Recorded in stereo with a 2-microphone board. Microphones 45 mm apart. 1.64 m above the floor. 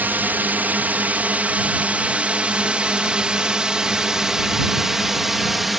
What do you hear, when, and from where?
0.0 s a drone: 45° right (ahead or behind); by 5.8 s 5° right (ahead or behind)